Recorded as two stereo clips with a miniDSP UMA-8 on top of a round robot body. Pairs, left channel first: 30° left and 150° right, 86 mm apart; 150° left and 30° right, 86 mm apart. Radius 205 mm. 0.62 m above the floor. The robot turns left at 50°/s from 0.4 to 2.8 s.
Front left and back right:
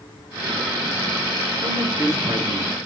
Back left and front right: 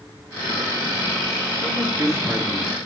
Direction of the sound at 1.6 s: 65° right.